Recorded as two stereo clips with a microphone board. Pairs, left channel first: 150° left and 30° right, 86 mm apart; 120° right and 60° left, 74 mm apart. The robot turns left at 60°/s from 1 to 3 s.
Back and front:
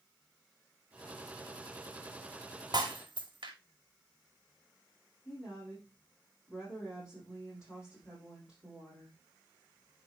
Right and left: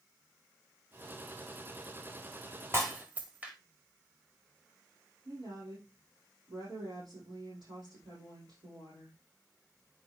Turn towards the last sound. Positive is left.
turn(degrees=50)